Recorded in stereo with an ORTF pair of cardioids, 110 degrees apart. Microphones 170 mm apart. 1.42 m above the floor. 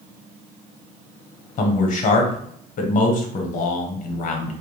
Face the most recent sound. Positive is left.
turn(degrees=50)